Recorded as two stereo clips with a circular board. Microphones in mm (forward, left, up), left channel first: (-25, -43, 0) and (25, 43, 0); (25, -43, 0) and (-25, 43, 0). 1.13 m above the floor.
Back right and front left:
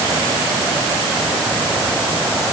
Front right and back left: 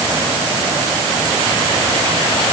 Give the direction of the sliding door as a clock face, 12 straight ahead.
I don't hear a sliding door.